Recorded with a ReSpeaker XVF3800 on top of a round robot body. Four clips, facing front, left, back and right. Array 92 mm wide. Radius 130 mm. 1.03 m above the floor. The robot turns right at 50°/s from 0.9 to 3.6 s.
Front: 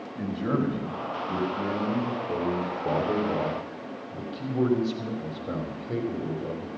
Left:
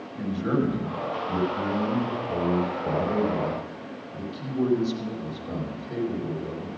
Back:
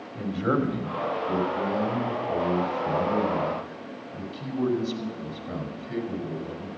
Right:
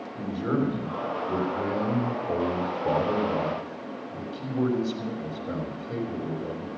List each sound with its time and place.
0.1 s a man speaking: 155° right, 3 m; by 6.7 s 20° right, 3 m